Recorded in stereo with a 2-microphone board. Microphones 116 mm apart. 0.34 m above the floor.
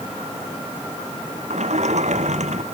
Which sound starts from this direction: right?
A sliding door, at 1.5 s.